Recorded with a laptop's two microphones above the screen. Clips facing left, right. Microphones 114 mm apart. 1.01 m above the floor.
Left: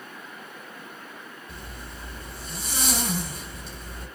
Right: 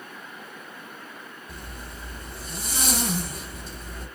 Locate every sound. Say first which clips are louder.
1.5 s a zipper: right 1 dB; 40° right (ahead or behind), 2.5 m